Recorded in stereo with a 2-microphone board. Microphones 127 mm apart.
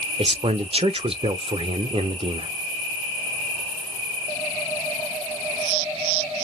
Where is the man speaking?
45° right (ahead or behind), 0.5 m.